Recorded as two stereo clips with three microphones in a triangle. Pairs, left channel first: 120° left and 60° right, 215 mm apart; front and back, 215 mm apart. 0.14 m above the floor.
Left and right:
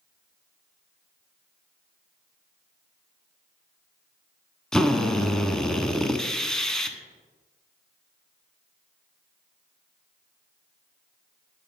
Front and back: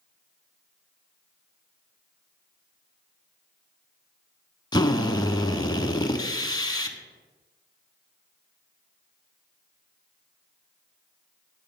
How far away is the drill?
About 0.5 m.